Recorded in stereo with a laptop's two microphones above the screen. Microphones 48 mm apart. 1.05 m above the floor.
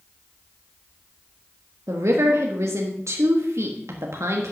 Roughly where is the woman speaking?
Right.